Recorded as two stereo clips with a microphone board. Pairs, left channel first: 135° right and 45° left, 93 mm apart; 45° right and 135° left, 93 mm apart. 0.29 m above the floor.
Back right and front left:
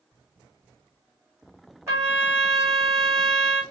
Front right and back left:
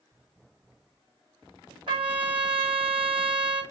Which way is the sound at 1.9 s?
105° left.